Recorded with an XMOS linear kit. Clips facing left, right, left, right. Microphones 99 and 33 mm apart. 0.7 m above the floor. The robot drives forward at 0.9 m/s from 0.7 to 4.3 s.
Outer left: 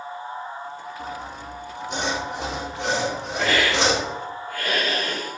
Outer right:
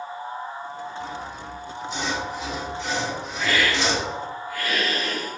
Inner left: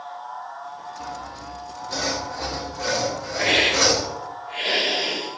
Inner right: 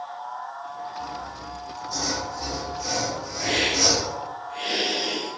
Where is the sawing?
50° left (ahead or behind), 4 m; by 4.1 s 75° left (ahead or behind), 3.5 m.